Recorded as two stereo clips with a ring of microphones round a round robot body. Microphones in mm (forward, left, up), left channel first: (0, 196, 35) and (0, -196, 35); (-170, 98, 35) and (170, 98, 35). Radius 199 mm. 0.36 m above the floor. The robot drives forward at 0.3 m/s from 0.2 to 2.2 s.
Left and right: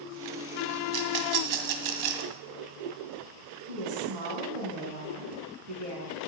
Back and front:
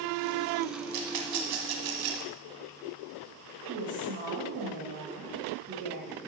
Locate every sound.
0.9 s a rattle: 45° right, 1.7 m; by 2.3 s 55° right, 1.4 m
3.7 s a woman speaking: 70° right, 4.5 m